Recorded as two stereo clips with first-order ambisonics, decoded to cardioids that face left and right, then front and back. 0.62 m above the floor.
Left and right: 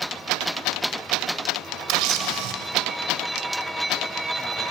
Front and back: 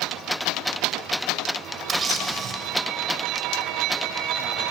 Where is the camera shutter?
115° right, 0.7 m.